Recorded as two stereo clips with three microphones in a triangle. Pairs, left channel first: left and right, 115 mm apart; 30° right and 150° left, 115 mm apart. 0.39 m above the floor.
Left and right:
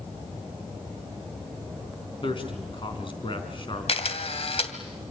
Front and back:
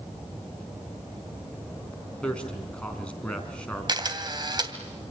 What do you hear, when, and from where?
2.2 s a man speaking: 50° left, 4.5 m
3.9 s a camera shutter: 105° left, 2 m